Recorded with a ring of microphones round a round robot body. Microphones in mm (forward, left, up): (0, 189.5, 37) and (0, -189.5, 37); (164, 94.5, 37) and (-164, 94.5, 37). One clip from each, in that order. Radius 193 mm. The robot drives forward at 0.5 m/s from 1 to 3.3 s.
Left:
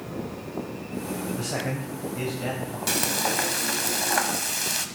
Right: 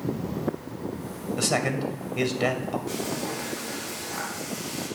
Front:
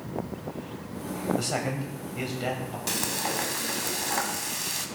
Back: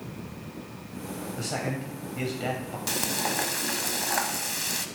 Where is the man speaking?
75° right, 2 m; by 2.8 s 100° right, 2 m.